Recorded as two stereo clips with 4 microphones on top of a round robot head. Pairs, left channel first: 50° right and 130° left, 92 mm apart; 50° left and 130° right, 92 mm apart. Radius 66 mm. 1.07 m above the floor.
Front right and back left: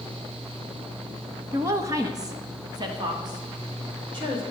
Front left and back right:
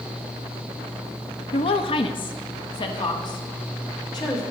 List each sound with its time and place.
1.5 s a woman speaking: 70° left, 0.7 m; by 4.4 s 90° left, 2.5 m